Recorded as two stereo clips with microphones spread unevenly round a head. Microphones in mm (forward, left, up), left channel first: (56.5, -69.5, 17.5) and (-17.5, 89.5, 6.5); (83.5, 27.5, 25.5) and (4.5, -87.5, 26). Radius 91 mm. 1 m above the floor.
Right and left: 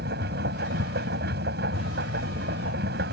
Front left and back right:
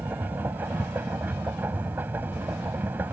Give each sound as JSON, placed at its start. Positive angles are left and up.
{"t": 0.0, "sound": "a machine running", "azimuth_deg": 155}